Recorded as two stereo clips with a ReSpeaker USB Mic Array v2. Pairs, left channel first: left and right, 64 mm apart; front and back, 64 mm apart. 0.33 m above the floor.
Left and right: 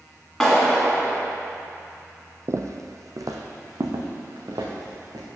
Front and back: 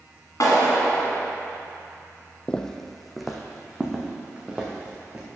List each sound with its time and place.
0.4 s a clap: 10° left, 2 m
2.5 s footsteps: 75° right, 0.5 m; by 5.2 s 105° right, 1.9 m